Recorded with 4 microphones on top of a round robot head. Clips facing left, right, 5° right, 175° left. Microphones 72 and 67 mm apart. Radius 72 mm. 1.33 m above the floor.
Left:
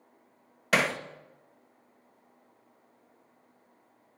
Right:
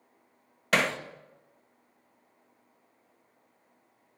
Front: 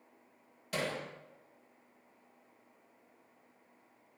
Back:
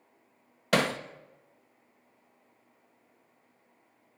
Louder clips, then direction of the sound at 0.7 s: Even, back 10 dB; 175° left.